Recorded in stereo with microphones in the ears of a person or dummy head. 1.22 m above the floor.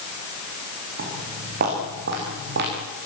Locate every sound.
1.0 s footsteps: 50° right (ahead or behind), 10 m; by 2.7 s 60° right (ahead or behind), 10 m